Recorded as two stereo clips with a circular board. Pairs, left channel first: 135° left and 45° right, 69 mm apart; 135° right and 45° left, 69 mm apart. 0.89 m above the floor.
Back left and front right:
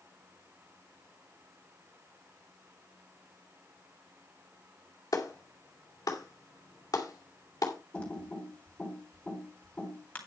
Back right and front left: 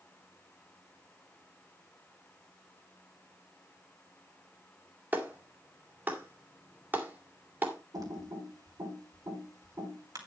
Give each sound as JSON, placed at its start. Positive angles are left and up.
{"t": 5.1, "sound": "a clap", "azimuth_deg": 105, "distance_m": 2.5}
{"t": 7.9, "sound": "typing on a keyboard", "azimuth_deg": 65, "distance_m": 3.5}